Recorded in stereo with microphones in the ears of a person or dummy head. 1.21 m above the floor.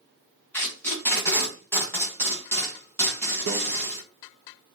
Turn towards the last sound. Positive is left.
turn(degrees=-75)  # may be behind; listen again after turning